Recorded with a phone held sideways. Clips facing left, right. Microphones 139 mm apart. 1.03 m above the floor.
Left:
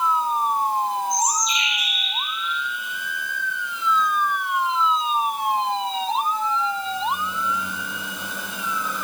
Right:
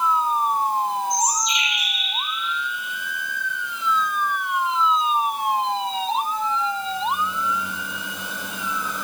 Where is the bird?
80° right, 2.5 m.